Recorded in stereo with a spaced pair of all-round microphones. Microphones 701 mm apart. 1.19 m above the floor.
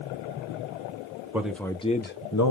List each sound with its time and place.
1.3 s a man speaking: 5° right (ahead or behind), 0.9 m; by 2.5 s 30° left (ahead or behind), 0.5 m